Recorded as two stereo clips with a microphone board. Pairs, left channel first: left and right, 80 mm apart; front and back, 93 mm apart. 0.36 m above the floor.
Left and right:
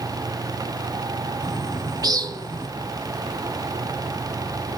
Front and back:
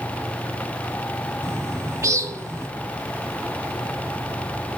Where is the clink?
I don't hear a clink.